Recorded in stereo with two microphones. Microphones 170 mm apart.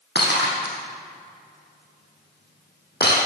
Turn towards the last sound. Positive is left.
turn(degrees=75)  # may be behind; listen again after turning